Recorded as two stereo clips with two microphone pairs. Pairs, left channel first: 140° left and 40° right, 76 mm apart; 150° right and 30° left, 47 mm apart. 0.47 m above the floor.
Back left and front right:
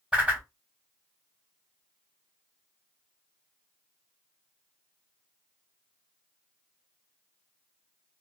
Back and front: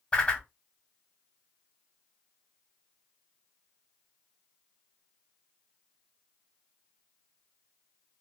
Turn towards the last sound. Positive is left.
turn(degrees=-115)